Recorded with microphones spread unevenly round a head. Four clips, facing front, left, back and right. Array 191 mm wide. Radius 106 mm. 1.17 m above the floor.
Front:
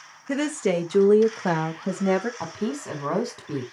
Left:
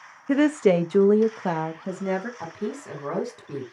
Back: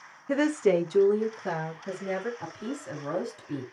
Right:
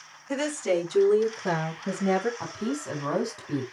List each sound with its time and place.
0.3 s a woman speaking: 85° left, 1.8 m; by 2.3 s 5° left, 2.5 m
2.4 s a woman speaking: 5° left, 4 m